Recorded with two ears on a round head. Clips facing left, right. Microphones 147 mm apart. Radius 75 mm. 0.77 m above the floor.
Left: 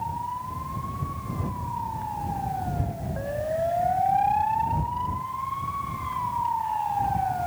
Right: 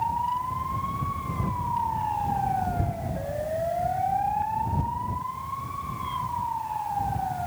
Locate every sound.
Only background noise.